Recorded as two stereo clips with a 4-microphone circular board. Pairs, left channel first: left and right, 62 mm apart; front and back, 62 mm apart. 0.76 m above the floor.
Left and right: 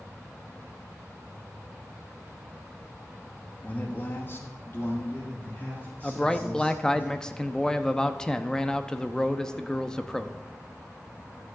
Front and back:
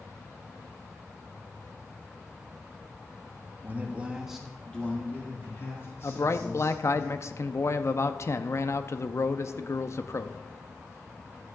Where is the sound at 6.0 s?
15° left, 0.6 m.